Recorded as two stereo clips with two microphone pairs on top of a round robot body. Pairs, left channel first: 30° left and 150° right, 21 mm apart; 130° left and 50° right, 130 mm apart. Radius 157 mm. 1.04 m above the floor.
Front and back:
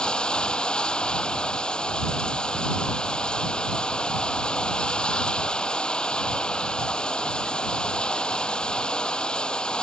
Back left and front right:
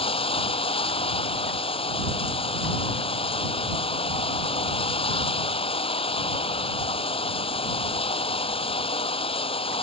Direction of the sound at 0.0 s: 85° left.